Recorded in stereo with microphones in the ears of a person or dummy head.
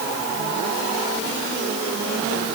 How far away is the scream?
No scream in this recording.